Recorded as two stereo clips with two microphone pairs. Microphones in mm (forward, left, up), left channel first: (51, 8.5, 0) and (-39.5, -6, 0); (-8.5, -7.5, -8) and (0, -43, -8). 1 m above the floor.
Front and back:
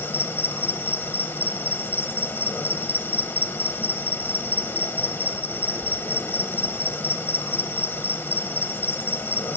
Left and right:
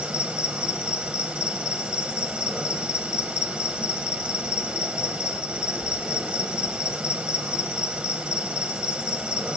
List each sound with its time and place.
0.0 s an insect: 30° right, 1.3 m